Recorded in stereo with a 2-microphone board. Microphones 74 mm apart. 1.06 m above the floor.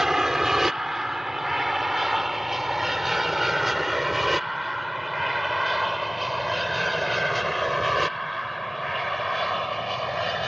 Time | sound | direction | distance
0.0 | an aircraft | 5° right (ahead or behind) | ?